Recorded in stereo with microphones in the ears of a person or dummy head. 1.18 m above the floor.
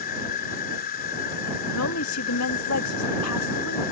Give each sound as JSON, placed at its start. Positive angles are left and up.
{"t": 0.0, "sound": "an insect", "side_deg": 50}
{"t": 1.7, "sound": "a woman speaking", "side_deg": 80}